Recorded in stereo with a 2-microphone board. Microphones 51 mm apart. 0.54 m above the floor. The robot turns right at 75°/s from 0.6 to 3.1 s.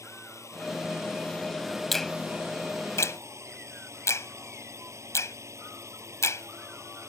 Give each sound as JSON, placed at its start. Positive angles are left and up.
{"t": 0.0, "sound": "a drone", "azimuth_deg": 95}
{"t": 1.9, "sound": "a finger snap", "side_deg": 5}